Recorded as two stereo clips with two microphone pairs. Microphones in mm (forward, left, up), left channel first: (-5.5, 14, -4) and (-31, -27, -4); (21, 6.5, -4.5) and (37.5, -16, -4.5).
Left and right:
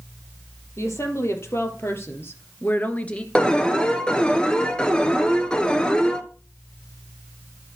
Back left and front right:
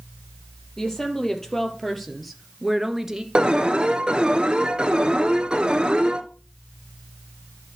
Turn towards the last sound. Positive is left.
turn(degrees=-10)